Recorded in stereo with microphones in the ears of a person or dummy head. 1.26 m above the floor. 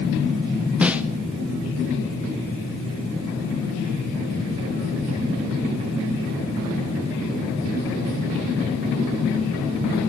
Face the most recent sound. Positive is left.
turn(degrees=-5)  # may be behind; listen again after turning